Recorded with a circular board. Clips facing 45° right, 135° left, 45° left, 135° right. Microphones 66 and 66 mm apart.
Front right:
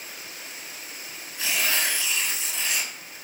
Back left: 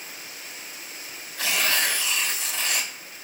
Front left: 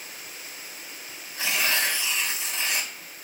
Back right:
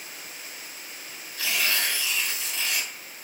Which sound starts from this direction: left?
Tearing paper, at 1.4 s.